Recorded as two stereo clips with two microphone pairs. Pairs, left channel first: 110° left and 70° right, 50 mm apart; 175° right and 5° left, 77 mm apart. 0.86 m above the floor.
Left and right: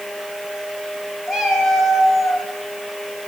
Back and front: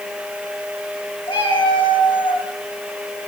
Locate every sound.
1.3 s a cat meowing: 165° right, 6 m